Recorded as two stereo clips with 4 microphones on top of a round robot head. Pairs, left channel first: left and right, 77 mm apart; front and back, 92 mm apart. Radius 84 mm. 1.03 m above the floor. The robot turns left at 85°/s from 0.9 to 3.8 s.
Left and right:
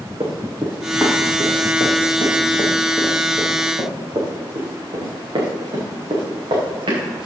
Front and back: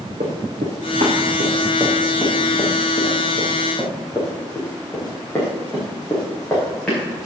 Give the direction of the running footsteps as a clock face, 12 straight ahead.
5 o'clock.